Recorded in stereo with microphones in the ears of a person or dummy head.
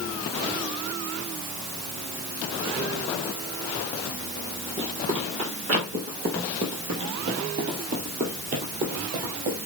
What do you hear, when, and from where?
4.8 s running footsteps: 30° right (ahead or behind), 2.5 m; by 9.6 s 45° right (ahead or behind), 2.5 m